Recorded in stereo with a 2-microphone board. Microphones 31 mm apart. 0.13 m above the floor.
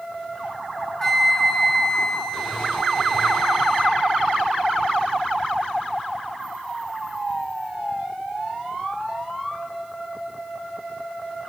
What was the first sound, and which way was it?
A flute, 20° left (ahead or behind).